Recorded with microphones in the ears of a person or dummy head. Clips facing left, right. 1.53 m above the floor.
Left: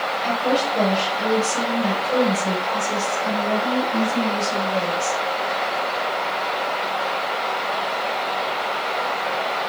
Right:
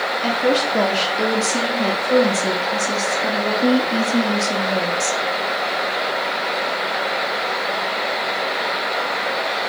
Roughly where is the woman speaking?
Right.